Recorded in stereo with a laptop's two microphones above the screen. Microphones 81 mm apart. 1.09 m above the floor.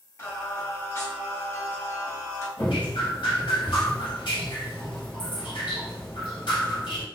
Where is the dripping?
70° left (ahead or behind), 1.8 m.